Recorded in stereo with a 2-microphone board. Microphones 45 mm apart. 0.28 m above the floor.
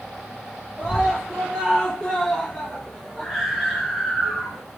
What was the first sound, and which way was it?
A scream, 15° left (ahead or behind).